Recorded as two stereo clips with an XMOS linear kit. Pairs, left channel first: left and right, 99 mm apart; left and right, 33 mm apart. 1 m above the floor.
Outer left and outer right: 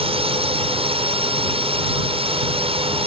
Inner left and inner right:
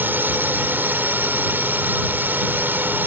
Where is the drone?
70° right (ahead or behind).